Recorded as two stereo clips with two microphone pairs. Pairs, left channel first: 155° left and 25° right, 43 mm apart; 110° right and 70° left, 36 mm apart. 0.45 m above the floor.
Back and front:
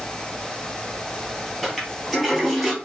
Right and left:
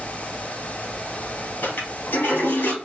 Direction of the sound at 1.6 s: 105° right.